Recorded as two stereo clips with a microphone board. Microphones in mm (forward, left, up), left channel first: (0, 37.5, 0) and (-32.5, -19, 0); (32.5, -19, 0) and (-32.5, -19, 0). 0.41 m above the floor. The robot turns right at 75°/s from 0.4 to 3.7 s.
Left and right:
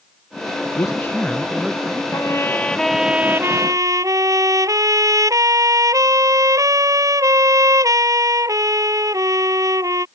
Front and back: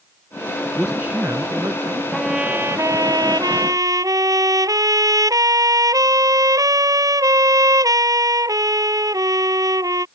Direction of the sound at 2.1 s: 90° left.